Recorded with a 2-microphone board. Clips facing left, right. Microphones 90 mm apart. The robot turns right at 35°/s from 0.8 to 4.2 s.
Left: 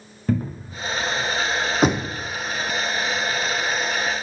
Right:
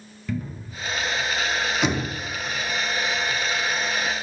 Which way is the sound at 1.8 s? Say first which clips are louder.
Left 7 dB; 40° left (ahead or behind).